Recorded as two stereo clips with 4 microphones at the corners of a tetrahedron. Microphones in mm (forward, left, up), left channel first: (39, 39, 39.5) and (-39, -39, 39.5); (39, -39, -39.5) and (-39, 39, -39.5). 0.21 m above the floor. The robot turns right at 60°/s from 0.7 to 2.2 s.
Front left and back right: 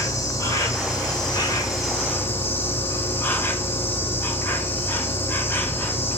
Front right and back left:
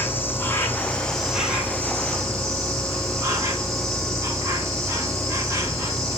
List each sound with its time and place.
0.0 s an insect: 10° left, 1.6 m; by 6.2 s 100° left, 1.6 m